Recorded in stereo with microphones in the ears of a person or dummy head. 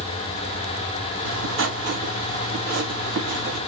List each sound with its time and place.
1.2 s writing: 65° right (ahead or behind), 1.8 m